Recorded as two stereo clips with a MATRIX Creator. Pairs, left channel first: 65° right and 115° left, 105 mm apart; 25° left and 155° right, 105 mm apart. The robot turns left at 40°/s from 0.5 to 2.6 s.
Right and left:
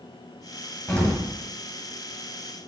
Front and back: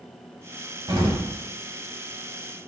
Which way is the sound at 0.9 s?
135° right.